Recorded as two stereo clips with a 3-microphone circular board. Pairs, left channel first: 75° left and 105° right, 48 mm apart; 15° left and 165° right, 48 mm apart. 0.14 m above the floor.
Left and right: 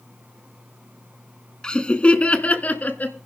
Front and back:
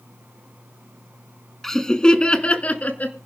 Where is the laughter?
75° left, 1.2 m; by 3.2 s 45° left, 1.7 m.